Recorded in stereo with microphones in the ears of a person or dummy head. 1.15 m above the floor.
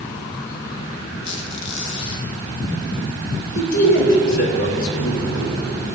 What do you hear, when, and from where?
1.2 s a squeak: 40° left (ahead or behind), 4 m
3.5 s a man speaking: 75° left (ahead or behind), 4 m